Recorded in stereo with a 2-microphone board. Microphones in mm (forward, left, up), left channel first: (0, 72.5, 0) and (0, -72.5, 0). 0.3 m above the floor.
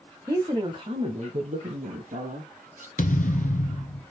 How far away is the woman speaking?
About 1.2 m.